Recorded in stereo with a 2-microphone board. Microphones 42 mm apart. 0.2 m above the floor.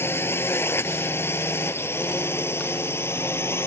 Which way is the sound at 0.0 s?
70° left (ahead or behind).